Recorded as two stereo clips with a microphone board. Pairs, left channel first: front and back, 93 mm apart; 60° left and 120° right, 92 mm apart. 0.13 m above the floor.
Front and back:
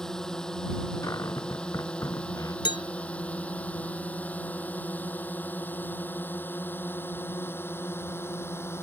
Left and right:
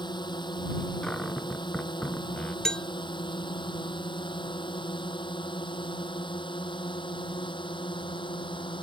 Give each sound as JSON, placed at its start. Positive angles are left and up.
{"t": 0.0, "sound": "a drone", "azimuth_deg": 85}
{"t": 1.0, "sound": "a cupboard door", "azimuth_deg": -15}
{"t": 2.6, "sound": "a bell", "azimuth_deg": -20}